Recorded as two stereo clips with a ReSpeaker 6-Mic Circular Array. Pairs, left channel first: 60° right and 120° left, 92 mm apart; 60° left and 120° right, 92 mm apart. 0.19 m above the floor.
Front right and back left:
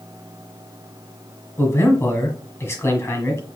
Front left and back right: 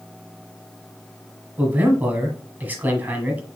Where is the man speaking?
70° right, 1.4 m.